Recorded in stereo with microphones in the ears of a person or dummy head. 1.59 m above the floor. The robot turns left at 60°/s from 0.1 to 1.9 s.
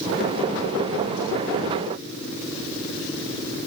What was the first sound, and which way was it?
Only background noise.